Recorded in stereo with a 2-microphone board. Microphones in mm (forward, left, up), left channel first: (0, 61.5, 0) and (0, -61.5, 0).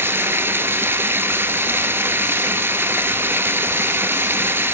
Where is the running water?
20° right (ahead or behind), 0.9 m.